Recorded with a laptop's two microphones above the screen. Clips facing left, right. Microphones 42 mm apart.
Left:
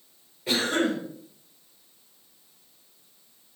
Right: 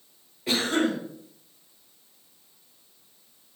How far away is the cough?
About 1.3 m.